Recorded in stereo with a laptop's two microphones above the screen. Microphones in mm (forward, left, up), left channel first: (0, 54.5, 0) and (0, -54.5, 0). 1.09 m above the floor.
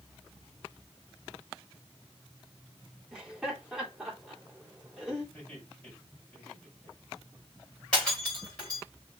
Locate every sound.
3.1 s laughter: 5° right (ahead or behind), 3.5 m
5.3 s laughter: 5° left (ahead or behind), 5.5 m
7.9 s breaking glass: 5° left (ahead or behind), 5.5 m